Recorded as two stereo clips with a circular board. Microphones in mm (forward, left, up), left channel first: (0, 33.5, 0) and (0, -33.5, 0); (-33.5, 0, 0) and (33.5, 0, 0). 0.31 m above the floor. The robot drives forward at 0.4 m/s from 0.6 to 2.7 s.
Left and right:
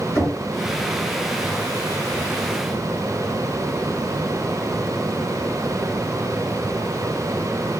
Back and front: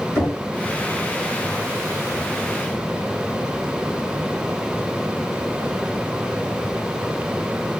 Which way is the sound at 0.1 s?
130° left.